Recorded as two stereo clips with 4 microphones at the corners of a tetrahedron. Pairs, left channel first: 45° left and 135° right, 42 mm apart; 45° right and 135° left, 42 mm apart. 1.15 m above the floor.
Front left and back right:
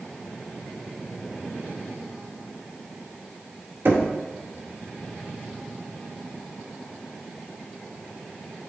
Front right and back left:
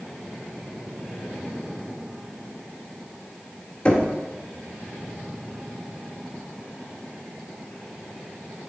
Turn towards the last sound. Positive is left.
turn(degrees=-110)